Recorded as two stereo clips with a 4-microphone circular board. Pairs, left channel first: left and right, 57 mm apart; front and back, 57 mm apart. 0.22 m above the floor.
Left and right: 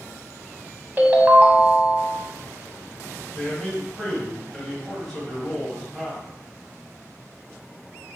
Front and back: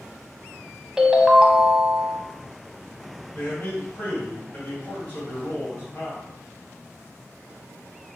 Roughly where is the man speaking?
Ahead.